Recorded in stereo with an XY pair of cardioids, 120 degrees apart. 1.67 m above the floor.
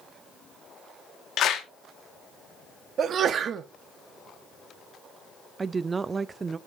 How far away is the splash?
No splash in this recording.